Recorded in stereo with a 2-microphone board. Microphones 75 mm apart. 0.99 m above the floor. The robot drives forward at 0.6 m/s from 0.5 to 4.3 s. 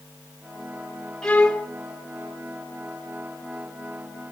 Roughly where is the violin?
Centre.